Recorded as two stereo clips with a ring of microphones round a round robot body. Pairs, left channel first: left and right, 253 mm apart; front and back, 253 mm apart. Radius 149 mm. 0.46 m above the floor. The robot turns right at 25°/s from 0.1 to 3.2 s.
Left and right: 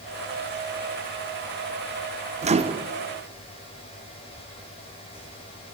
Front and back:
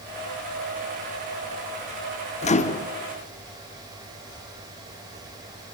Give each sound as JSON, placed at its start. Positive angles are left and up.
{"t": 2.4, "sound": "a microwave", "azimuth_deg": -45, "distance_m": 1.0}